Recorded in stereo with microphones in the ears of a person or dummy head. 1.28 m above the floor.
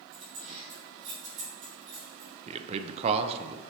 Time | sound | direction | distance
0.1 | keys jangling | 35° right (ahead or behind) | 4 m
2.5 | a man speaking | 35° right (ahead or behind) | 0.6 m